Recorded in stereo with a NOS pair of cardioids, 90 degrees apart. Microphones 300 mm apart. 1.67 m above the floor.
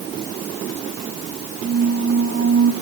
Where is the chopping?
No chopping in this recording.